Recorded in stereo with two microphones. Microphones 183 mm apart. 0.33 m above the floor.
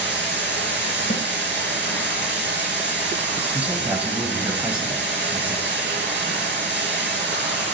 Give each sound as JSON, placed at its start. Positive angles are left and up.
{"t": 0.0, "sound": "running water", "side_deg": -75, "distance_m": 3.0}
{"t": 1.1, "sound": "a snare drum", "side_deg": 35, "distance_m": 1.4}
{"t": 3.5, "sound": "a man speaking", "side_deg": -10, "distance_m": 1.5}